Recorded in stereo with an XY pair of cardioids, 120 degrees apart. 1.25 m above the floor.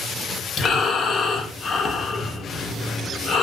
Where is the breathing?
40° left, 0.6 m.